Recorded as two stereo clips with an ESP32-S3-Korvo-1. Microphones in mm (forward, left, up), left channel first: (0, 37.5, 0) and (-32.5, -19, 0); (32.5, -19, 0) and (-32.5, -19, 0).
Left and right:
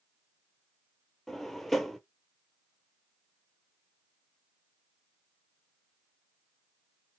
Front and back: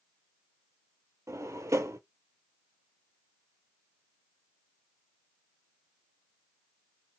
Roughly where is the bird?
No bird in this recording.